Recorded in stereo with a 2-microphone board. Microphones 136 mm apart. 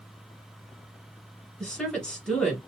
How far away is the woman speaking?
About 1.8 m.